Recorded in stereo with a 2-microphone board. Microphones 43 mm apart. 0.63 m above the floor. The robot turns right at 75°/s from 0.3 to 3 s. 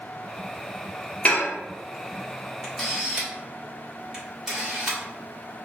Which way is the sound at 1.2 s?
30° left (ahead or behind).